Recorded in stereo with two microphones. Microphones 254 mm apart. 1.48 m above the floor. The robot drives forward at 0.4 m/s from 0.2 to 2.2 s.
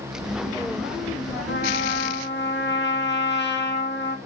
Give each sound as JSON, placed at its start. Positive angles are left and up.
{"t": 1.5, "sound": "a trumpet", "side_deg": 50, "distance_m": 1.6}